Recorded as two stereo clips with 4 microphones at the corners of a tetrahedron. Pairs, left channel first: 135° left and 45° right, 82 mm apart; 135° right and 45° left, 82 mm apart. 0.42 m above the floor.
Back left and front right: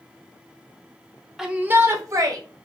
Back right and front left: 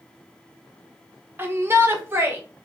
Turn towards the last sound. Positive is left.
turn(degrees=-10)